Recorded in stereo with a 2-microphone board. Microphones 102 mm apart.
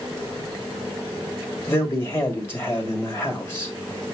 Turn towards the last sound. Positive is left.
turn(degrees=25)  # may be behind; listen again after turning